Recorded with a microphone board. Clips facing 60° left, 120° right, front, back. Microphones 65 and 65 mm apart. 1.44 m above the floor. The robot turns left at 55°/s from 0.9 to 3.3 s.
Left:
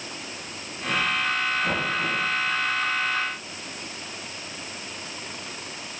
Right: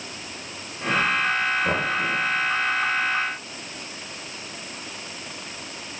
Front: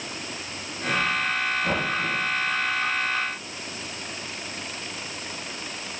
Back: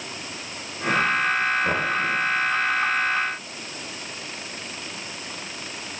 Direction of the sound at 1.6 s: 125° right.